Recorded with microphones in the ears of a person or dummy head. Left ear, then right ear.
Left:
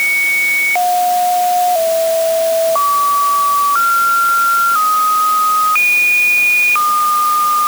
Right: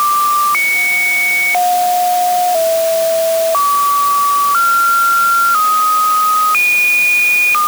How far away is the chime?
I don't hear a chime.